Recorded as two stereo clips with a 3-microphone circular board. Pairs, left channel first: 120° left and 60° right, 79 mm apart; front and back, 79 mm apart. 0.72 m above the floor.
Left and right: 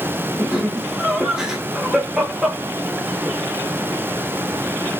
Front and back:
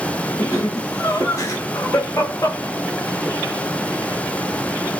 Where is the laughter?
15° left, 1.4 m.